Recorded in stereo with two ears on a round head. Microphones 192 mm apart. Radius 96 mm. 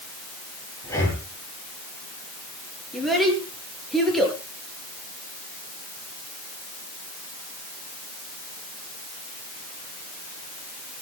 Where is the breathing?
15° left (ahead or behind), 9.5 m.